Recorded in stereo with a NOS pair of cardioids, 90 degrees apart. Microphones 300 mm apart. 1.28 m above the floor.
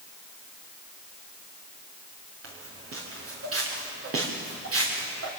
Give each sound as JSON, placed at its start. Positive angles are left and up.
{"t": 2.4, "sound": "footsteps", "azimuth_deg": -50, "distance_m": 6.0}